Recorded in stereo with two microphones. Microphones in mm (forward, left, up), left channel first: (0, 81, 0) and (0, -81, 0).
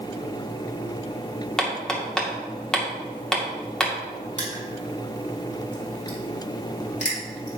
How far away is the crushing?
About 3.5 m.